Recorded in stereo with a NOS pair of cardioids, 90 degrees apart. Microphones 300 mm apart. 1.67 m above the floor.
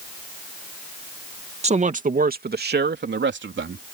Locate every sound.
1.6 s a man speaking: 20° right; by 3.9 s 40° right